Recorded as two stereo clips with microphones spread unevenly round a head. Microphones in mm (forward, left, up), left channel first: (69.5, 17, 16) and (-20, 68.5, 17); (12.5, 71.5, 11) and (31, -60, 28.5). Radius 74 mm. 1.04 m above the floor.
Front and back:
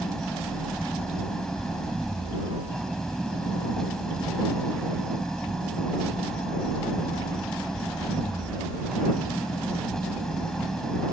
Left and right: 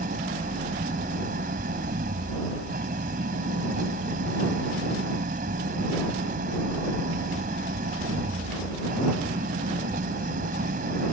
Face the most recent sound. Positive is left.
turn(degrees=-115)